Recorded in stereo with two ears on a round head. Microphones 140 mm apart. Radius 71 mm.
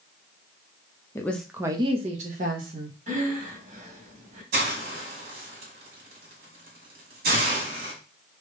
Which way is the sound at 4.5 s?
65° right (ahead or behind).